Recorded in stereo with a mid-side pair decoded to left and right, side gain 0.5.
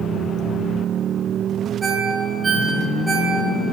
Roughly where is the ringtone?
Ahead.